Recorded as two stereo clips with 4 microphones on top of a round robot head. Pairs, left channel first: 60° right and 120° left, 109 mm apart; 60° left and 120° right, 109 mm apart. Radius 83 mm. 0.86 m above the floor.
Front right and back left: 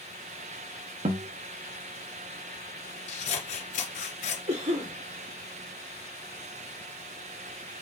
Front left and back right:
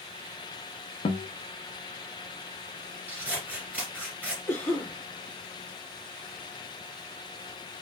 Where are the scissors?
45° right, 1.6 m.